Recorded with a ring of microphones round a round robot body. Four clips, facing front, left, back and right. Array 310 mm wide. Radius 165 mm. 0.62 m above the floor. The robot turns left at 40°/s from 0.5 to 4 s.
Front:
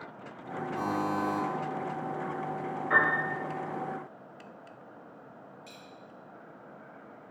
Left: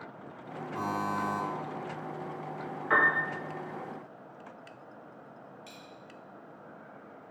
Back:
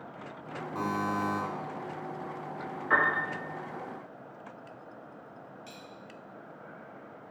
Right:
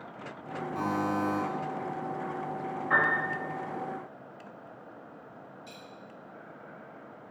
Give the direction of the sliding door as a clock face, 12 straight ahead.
No sliding door in this recording.